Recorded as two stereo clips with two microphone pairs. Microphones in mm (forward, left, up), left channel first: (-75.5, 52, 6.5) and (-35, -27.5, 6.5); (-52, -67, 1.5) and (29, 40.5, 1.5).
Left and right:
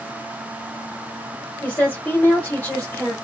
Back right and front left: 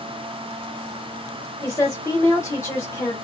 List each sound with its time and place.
1.6 s a woman speaking: straight behind, 1.2 m